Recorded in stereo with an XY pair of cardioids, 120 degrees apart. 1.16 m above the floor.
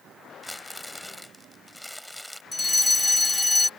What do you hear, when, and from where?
0.4 s crumpling: 5° left
2.5 s a fire alarm: 15° left